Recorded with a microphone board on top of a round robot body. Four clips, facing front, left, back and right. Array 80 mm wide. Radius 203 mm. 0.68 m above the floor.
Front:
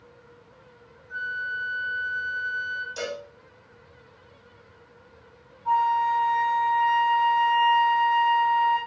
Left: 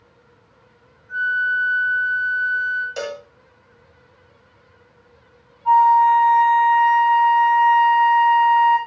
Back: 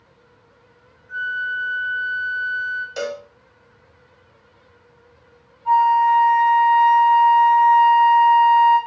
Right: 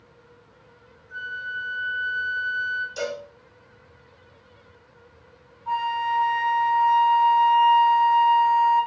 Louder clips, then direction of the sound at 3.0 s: Left 1 dB, back 6 dB; 130° left.